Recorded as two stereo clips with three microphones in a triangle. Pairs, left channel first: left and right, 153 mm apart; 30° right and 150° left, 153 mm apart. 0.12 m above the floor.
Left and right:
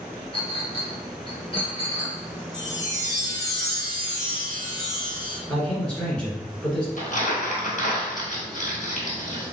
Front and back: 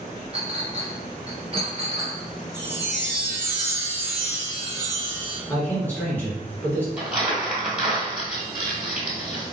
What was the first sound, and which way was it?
A clink, 125° left.